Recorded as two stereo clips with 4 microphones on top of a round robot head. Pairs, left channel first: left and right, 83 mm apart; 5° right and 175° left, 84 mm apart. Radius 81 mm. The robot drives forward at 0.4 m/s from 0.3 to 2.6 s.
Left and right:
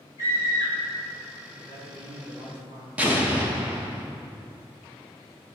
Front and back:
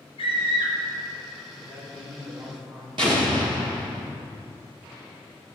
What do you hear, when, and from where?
0.2 s a scream: 25° right, 2.5 m
1.5 s a man speaking: 125° right, 1.7 m; by 2.9 s 135° right, 2 m
3.0 s an explosion: 155° right, 1.1 m